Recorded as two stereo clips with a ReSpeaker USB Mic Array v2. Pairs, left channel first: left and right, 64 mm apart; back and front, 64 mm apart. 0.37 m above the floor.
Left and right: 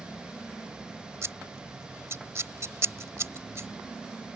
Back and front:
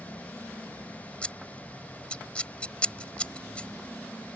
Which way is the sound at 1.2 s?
115° right.